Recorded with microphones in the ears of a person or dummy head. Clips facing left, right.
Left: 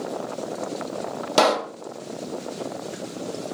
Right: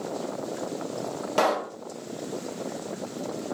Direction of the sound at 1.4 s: 60° left (ahead or behind).